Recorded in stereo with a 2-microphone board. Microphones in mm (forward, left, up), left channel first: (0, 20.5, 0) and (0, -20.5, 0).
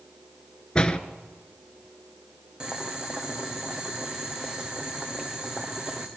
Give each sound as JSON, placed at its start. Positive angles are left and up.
{"t": 0.8, "sound": "a door slam", "side_deg": 20, "distance_m": 1.1}
{"t": 2.6, "sound": "boiling", "side_deg": -15, "distance_m": 2.5}